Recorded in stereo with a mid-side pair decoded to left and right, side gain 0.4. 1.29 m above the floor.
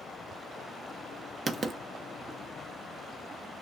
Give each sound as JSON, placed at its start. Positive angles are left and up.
{"t": 1.5, "sound": "writing", "azimuth_deg": -40, "distance_m": 0.7}